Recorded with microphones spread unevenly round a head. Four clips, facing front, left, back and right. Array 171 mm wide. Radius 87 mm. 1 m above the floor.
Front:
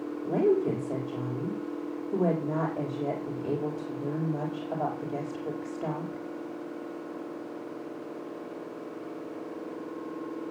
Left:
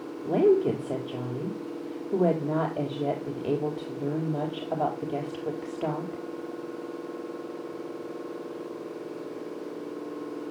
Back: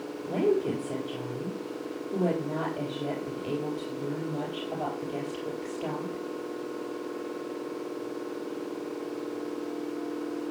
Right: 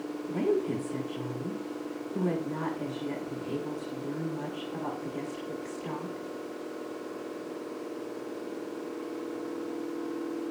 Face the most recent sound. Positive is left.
turn(degrees=75)